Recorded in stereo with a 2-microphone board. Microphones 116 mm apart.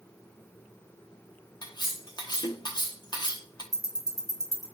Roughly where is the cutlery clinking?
Left.